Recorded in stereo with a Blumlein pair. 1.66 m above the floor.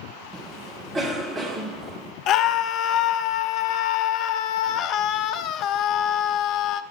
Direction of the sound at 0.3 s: 20° right.